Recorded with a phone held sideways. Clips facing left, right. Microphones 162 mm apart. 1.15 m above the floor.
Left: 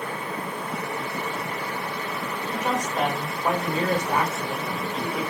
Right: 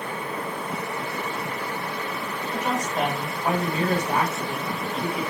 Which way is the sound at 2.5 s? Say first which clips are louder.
Even; 20° left (ahead or behind).